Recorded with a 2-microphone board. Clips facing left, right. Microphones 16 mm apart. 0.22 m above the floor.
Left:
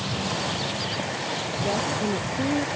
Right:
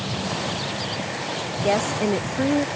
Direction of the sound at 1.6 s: 45° right (ahead or behind).